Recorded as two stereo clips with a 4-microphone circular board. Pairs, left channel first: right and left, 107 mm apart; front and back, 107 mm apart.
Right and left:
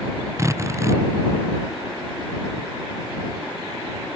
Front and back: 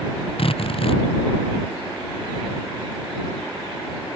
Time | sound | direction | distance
0.4 | a drill | 30° left | ?